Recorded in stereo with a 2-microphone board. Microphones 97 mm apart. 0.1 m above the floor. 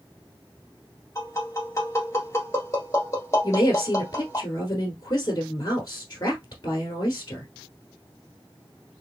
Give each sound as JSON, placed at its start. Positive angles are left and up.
{"t": 1.1, "sound": "tapping", "side_deg": 30, "distance_m": 1.6}
{"t": 3.4, "sound": "a woman speaking", "side_deg": 40, "distance_m": 1.3}